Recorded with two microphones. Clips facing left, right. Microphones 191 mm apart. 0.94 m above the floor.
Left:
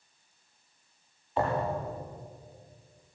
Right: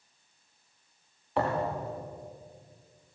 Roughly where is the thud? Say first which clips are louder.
Even; right.